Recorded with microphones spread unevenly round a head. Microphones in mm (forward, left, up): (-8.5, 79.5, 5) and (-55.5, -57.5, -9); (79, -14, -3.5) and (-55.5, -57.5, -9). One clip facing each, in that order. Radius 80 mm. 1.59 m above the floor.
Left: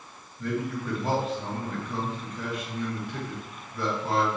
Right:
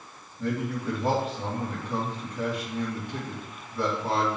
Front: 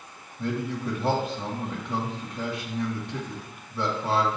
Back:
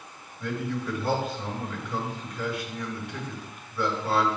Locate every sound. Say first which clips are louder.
0.4 s a man speaking: right 1 dB, front 2 dB; 35° right, 2.5 m